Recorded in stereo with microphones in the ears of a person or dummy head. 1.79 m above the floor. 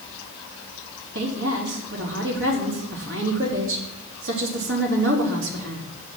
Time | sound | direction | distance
1.1 | a woman speaking | 75° right (ahead or behind) | 4 m